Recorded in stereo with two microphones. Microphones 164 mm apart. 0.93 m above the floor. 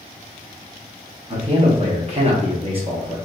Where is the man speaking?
40° right (ahead or behind), 1.2 m; by 3.2 s 25° right (ahead or behind), 0.8 m.